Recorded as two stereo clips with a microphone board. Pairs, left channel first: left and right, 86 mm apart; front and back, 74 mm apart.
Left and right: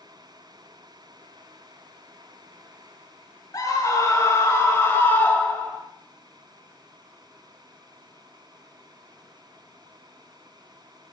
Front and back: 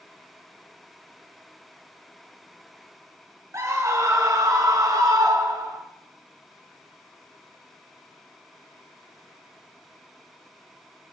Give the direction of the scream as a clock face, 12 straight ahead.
7 o'clock.